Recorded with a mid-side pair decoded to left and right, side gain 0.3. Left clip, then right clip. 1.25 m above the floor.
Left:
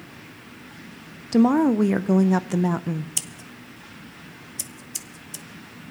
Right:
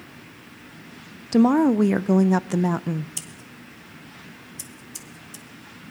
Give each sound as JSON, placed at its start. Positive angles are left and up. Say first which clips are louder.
{"t": 1.3, "sound": "a woman speaking", "louder": "right 1 dB", "azimuth_deg": -20, "distance_m": 0.5}
{"t": 3.2, "sound": "scissors", "louder": "left 5 dB", "azimuth_deg": 55, "distance_m": 0.8}